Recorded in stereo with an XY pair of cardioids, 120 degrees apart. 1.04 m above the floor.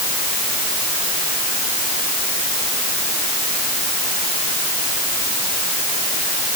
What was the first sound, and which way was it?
Only background noise.